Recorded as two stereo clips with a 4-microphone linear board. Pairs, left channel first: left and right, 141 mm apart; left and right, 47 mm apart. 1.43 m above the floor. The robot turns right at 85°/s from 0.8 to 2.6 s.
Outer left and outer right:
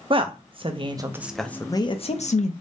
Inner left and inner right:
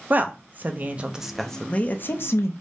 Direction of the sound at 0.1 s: 40° right (ahead or behind).